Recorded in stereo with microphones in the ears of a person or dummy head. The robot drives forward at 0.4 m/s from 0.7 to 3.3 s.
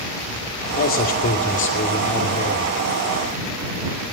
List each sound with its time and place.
0.8 s a man speaking: 50° left (ahead or behind), 2.5 m; by 2.8 s 35° left (ahead or behind), 3 m